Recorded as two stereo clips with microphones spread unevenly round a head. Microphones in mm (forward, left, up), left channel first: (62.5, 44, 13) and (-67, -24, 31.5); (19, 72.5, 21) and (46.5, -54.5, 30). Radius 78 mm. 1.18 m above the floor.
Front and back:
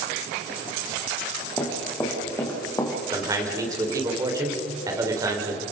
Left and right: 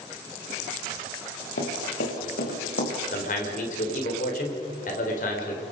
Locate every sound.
1.6 s running footsteps: 110° left, 5.5 m; by 2.9 s 100° left, 6 m
3.1 s a man speaking: 140° left, 4 m